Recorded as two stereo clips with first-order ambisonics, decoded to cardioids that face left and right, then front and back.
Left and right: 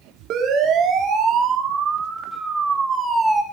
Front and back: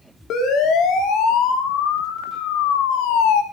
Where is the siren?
45° right, 3.5 m; by 3.4 s 5° right, 3 m.